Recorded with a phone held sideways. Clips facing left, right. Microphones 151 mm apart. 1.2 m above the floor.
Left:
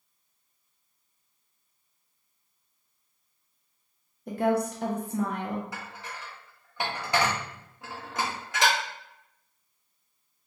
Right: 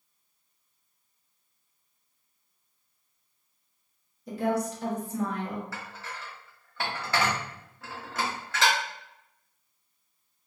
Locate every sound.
4.3 s a woman speaking: 60° left (ahead or behind), 0.7 m
5.7 s dishes clattering: 15° left (ahead or behind), 0.7 m